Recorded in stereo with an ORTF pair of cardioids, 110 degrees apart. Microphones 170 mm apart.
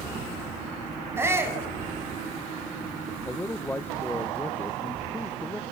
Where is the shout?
15° right, 8.5 m.